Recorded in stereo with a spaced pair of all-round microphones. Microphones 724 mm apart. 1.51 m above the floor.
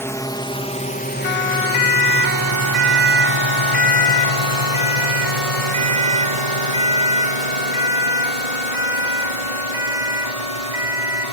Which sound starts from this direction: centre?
A drone, at 0.0 s.